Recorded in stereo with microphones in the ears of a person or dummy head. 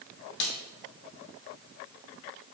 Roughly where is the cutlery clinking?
No cutlery clinking in this recording.